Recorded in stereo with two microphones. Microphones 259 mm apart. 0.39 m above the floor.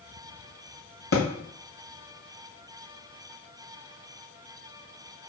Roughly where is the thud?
Left.